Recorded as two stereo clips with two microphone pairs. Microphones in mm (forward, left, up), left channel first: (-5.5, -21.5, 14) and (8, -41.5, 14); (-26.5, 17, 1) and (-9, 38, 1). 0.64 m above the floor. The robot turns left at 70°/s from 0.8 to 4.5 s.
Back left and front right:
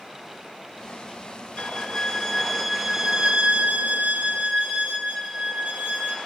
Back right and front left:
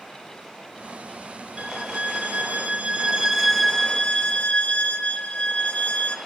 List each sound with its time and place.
1.6 s a violin: 95° left, 1.8 m; by 6.2 s 110° right, 1.8 m